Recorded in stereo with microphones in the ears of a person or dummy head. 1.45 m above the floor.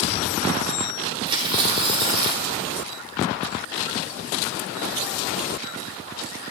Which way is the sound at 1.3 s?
30° right (ahead or behind).